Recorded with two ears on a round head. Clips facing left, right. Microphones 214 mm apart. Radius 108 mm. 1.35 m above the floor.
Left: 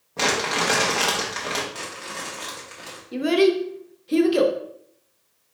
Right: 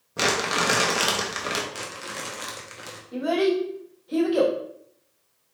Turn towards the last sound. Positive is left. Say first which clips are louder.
# left 4 dB
turn(degrees=35)  # may be behind; listen again after turning